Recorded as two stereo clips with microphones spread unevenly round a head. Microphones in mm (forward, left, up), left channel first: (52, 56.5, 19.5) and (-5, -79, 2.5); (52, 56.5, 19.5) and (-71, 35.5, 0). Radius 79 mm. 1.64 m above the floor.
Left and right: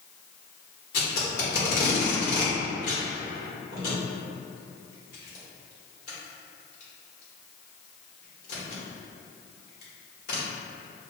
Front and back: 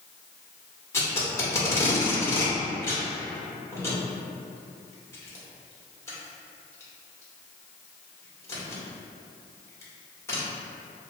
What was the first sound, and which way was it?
Tape being pulled, 70° left.